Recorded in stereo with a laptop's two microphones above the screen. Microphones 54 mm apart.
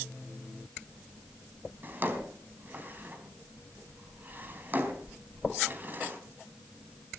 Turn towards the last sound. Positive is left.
turn(degrees=-35)  # may be behind; listen again after turning